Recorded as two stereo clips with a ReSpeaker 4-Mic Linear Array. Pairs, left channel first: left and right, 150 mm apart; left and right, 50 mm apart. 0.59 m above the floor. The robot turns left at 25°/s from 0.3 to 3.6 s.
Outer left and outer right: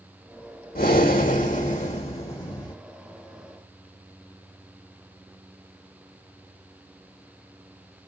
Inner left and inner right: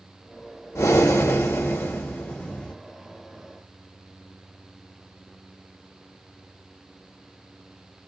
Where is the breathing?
75° left, 1.3 m; by 2.8 s 25° left, 1.3 m.